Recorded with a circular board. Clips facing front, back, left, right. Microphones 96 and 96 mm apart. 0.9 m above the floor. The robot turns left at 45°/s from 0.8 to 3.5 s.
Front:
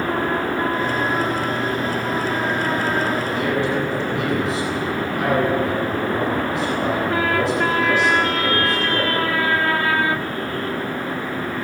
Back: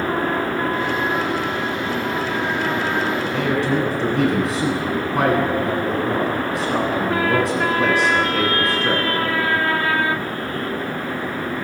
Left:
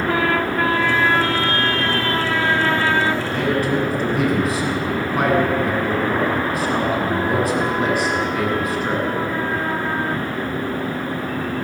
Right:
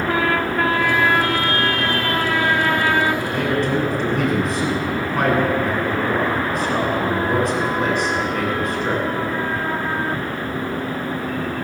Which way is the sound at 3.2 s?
175° right.